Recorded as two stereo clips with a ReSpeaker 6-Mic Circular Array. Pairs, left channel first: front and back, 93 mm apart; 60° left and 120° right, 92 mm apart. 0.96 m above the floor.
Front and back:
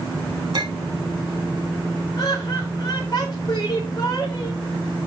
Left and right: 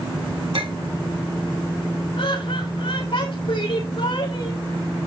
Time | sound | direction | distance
0.5 | a clink | 145° right | 1.3 m
2.2 | laughter | 50° left | 4 m